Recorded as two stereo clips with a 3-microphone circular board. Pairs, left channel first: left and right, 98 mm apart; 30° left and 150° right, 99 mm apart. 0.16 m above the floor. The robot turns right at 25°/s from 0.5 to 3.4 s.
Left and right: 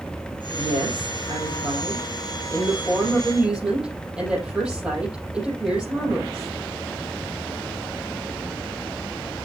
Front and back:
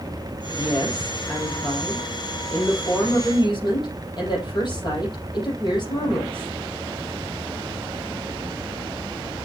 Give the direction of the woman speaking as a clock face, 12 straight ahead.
3 o'clock.